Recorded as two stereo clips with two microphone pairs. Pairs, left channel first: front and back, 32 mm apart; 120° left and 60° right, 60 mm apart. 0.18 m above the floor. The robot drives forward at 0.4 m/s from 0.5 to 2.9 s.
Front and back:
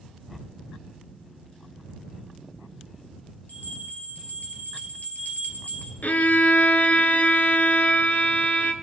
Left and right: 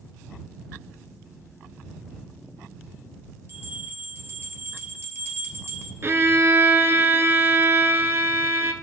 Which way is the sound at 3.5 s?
15° right.